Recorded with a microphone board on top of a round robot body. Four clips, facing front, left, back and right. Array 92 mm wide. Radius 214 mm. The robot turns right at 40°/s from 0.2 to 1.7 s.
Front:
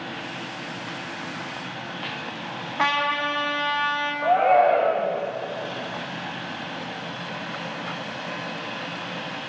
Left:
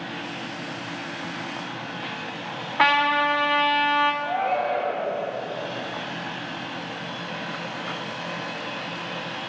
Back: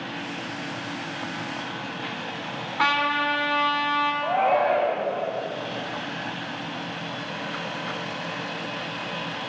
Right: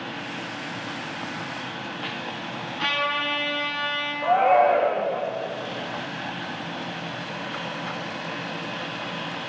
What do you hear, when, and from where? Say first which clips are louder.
2.8 s a trumpet: left 7 dB, even; 70° left, 3.5 m
4.2 s a shout: right 6 dB, front 6 dB; 35° right, 4.5 m